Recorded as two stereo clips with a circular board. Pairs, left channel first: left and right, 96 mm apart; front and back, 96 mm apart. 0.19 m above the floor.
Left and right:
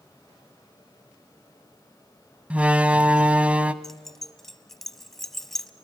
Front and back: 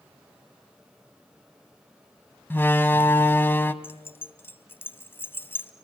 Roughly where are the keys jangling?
Ahead.